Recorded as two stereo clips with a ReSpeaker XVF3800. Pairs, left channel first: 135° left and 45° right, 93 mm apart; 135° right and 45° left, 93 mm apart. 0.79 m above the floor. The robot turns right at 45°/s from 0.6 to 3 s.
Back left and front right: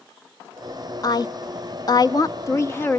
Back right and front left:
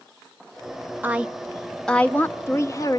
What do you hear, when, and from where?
1.0 s a woman speaking: 110° left, 0.9 m; by 3.0 s 165° right, 0.9 m